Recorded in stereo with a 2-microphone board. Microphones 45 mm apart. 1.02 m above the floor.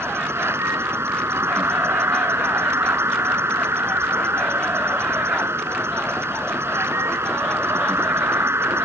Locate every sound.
0.0 s an insect: 90° right